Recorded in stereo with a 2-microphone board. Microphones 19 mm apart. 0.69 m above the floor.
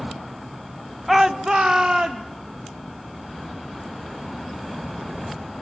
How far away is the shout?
About 0.7 m.